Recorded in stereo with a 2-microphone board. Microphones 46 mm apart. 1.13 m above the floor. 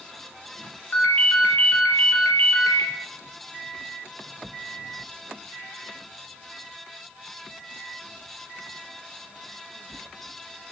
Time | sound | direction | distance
0.9 | a ringtone | 50° left (ahead or behind) | 0.5 m